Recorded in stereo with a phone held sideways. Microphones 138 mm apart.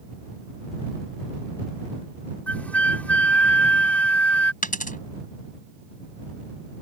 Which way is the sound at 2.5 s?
10° left (ahead or behind).